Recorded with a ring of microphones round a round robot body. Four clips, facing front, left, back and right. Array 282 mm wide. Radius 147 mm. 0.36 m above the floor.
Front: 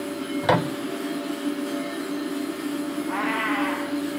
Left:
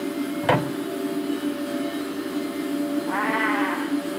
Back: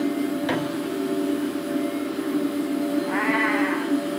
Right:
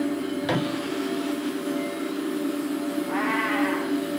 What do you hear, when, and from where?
0.4 s a microwave: 40° left, 1.2 m
3.1 s a cat meowing: 105° left, 9 m